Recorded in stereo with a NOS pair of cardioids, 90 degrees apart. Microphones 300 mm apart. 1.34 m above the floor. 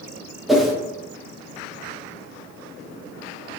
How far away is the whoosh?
About 0.5 m.